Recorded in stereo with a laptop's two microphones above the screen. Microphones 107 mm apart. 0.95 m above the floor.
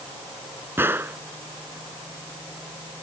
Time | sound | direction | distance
0.8 | a gunshot | 20° right (ahead or behind) | ?